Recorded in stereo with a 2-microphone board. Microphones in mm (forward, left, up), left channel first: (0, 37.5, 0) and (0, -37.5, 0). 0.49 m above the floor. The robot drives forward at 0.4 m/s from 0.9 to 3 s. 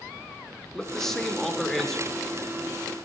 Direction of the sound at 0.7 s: 5° left (ahead or behind).